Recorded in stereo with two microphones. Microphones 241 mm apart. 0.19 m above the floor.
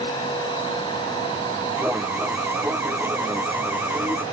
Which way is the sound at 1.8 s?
10° right (ahead or behind).